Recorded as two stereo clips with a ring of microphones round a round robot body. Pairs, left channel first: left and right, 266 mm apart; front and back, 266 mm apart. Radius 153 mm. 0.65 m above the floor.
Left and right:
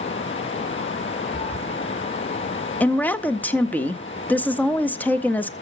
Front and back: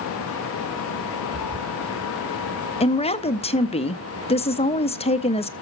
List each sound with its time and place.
1.3 s a cat meowing: 25° left, 5.5 m
2.8 s a woman speaking: 15° left, 0.7 m